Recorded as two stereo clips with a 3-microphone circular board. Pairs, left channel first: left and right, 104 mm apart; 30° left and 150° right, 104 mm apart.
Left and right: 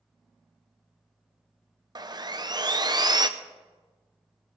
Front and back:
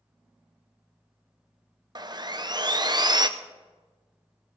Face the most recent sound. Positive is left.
turn(degrees=-120)